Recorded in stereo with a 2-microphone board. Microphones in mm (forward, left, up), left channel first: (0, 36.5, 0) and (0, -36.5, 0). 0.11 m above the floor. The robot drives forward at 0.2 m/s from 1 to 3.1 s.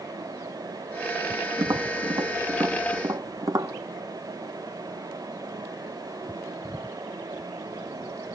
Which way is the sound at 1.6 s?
70° right (ahead or behind).